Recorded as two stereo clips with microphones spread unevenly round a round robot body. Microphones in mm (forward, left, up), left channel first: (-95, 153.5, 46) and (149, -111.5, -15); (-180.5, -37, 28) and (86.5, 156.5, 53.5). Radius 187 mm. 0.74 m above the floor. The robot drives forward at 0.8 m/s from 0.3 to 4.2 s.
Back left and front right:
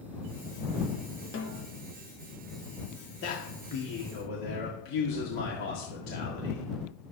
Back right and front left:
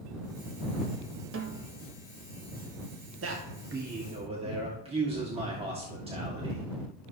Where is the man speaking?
80° left, 1.7 m; by 6.7 s 110° left, 1.7 m.